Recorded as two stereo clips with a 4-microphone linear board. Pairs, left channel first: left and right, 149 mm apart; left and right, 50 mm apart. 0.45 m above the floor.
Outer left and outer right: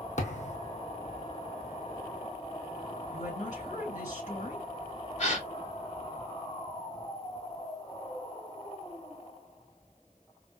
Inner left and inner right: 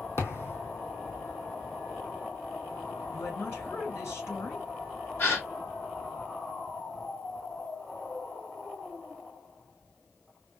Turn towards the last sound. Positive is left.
turn(degrees=50)  # may be behind; listen again after turning